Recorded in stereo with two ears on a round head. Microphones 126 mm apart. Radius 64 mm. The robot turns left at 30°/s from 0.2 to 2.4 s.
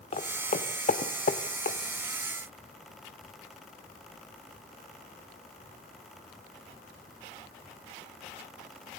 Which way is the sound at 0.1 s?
50° left (ahead or behind).